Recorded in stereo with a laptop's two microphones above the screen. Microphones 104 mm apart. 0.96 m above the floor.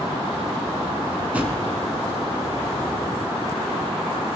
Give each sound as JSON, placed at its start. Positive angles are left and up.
{"t": 1.3, "sound": "a drawer", "side_deg": -15, "distance_m": 3.0}